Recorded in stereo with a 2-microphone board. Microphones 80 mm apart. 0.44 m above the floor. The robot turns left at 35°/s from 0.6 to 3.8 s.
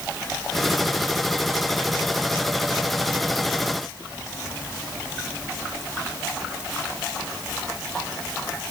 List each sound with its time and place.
Only background noise.